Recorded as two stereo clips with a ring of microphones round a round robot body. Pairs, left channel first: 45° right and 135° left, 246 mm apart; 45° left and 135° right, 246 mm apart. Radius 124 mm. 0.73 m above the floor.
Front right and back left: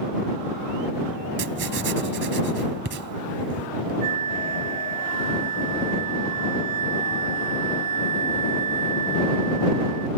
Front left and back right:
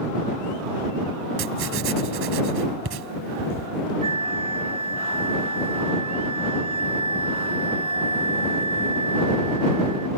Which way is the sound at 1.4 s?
175° right.